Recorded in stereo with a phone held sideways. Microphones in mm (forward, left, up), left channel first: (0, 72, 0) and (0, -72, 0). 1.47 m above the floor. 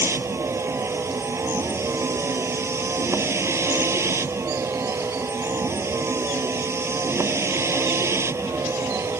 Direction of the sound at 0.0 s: 20° right (ahead or behind).